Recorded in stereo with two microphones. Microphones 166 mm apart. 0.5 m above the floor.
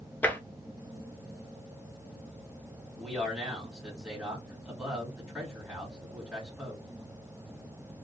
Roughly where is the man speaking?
Centre.